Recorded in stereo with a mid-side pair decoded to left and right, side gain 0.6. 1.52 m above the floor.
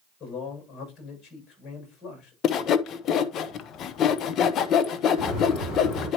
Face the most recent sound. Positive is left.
turn(degrees=60)